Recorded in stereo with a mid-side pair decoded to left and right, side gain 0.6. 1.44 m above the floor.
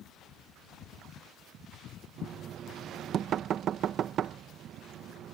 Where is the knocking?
50° right.